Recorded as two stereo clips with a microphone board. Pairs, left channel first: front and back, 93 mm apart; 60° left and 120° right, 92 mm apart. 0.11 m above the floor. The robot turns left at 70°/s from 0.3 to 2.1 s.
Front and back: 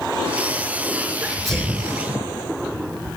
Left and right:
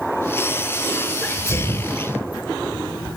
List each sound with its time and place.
1.2 s a sneeze: 105° left, 1.2 m; by 2.0 s 50° left, 1.2 m